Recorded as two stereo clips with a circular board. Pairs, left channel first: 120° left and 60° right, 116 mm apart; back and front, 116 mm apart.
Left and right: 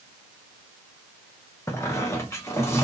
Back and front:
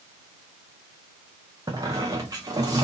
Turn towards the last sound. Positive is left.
turn(degrees=55)